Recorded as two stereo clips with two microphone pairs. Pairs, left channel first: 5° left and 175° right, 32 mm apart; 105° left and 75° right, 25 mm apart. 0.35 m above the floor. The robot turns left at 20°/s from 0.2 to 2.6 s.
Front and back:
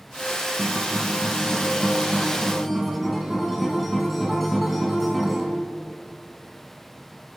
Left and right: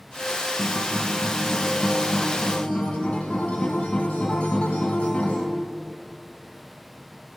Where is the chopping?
I don't hear chopping.